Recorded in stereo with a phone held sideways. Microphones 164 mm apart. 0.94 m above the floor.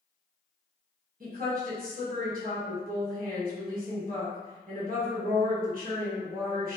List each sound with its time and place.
1.2 s a woman speaking: 60° right (ahead or behind), 1.2 m